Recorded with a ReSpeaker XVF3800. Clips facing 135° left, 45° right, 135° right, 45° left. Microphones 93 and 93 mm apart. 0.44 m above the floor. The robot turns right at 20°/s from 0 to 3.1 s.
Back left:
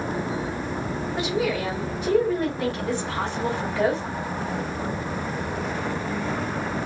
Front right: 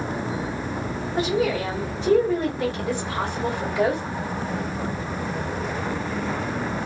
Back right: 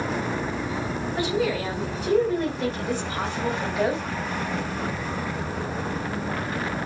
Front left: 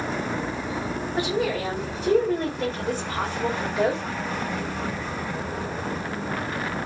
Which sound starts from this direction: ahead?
A woman speaking, at 1.2 s.